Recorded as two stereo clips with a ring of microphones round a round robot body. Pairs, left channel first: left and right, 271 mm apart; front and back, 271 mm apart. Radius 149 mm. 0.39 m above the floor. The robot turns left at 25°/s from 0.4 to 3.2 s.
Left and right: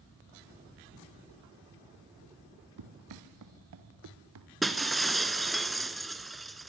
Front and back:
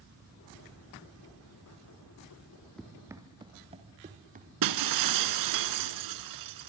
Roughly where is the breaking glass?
Behind.